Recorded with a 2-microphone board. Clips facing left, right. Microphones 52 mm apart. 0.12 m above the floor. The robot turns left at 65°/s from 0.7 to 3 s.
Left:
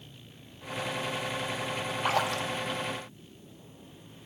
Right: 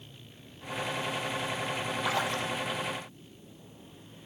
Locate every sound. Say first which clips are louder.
2.0 s a splash: left 3 dB; 130° left, 1.9 m; by 2.5 s 95° left, 1.9 m